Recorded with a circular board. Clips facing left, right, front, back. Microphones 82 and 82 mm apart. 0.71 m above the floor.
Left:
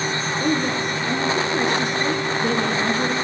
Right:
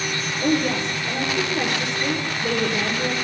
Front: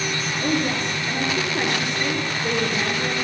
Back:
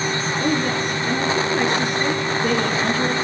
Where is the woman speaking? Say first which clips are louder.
Right 2 dB, back 1 dB; 130° left, 9.5 m.